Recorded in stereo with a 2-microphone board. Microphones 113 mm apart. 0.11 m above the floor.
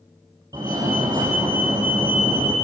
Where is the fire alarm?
30° right (ahead or behind), 6 m.